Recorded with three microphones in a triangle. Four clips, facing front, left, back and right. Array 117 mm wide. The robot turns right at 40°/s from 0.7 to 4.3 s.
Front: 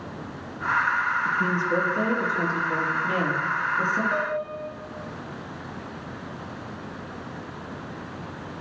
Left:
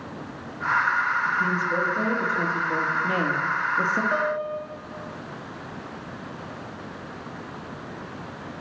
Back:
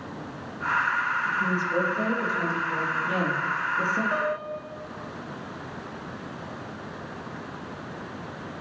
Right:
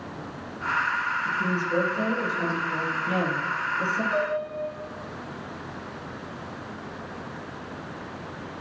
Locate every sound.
1.2 s a woman speaking: 10° right, 4 m; by 4.0 s 100° left, 4 m
4.1 s a piano: 105° left, 3 m; by 4.7 s 115° left, 3 m